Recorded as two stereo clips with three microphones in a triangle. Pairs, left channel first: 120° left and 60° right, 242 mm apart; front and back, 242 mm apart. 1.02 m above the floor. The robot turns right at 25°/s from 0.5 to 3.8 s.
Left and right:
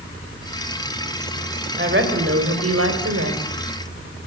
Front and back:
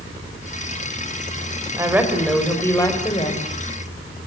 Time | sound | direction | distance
1.8 | a woman speaking | 105° right | 5 m